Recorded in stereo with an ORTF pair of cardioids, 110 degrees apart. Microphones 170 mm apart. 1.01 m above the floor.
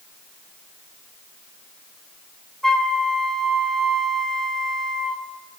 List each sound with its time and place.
2.6 s a flute: straight ahead, 3 m